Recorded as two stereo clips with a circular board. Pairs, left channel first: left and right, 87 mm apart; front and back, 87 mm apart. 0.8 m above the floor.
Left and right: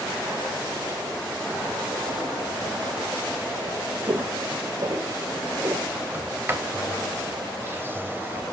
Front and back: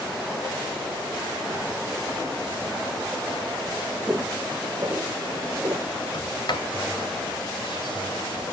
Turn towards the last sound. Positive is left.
turn(degrees=-30)